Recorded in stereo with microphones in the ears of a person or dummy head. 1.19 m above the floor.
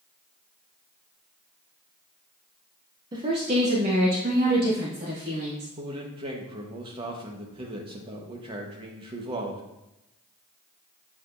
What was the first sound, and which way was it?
A woman speaking, 25° right (ahead or behind).